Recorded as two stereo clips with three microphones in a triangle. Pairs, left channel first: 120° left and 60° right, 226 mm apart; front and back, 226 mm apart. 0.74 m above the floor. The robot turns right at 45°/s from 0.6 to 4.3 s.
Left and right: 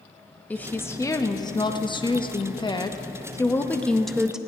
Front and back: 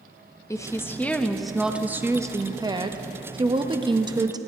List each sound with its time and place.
0.5 s a woman speaking: 50° left, 0.6 m; by 4.4 s 145° right, 0.6 m